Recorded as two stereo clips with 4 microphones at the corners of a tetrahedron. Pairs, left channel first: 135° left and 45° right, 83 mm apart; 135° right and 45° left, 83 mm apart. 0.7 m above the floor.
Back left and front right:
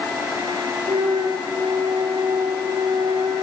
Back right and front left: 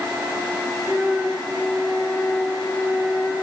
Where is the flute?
55° right, 6 m.